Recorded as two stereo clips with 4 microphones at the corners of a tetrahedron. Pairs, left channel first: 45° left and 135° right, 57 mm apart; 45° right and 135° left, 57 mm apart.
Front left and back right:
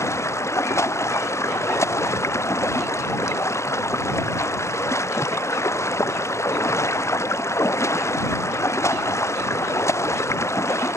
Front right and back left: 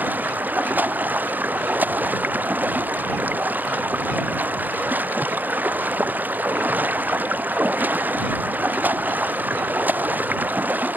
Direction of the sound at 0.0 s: 75° left.